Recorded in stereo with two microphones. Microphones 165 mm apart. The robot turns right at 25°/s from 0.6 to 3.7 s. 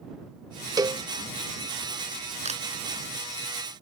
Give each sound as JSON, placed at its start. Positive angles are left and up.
{"t": 0.8, "sound": "a cowbell", "side_deg": -20}
{"t": 2.5, "sound": "a camera shutter", "side_deg": -40}